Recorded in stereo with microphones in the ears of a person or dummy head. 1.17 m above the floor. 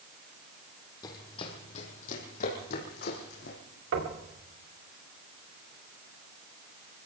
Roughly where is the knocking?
Right.